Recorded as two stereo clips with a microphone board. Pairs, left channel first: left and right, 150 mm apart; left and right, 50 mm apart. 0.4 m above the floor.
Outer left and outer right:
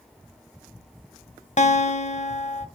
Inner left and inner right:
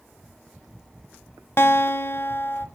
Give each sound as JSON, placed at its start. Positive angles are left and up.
{"t": 1.6, "sound": "a guitar", "side_deg": 50, "distance_m": 0.7}